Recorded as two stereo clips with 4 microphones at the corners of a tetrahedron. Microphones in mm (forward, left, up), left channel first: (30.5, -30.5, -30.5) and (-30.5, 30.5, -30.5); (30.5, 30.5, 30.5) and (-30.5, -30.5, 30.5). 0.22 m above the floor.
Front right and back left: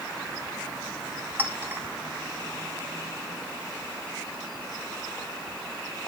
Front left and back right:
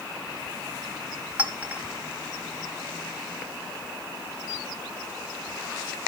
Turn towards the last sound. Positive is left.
turn(degrees=170)